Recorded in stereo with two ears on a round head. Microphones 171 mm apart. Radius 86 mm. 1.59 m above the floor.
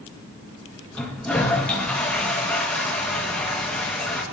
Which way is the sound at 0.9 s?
5° left (ahead or behind).